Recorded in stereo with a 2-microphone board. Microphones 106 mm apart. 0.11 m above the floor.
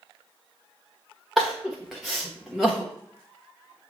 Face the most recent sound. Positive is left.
turn(degrees=0)  # may be behind; listen again after turning